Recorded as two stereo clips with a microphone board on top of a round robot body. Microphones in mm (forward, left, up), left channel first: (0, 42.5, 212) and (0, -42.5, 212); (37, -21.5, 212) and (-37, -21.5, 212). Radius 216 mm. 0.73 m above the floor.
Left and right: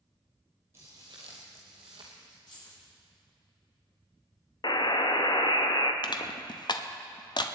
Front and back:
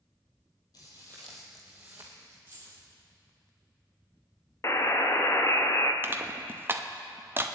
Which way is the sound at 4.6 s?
50° left.